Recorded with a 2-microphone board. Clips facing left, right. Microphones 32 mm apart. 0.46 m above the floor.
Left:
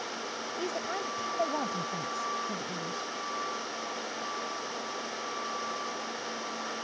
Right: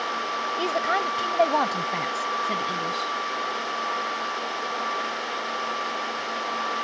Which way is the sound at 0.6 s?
60° right (ahead or behind).